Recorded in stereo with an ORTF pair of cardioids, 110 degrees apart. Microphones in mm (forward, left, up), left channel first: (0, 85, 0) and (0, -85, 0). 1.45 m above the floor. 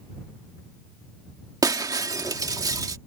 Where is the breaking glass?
20° right.